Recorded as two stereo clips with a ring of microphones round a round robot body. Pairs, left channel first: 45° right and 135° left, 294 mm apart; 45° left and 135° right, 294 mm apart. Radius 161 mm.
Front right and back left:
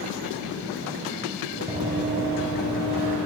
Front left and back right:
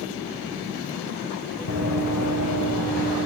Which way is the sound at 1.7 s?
75° left.